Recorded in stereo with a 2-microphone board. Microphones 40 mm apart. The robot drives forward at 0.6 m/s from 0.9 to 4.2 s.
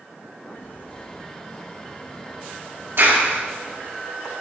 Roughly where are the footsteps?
Left.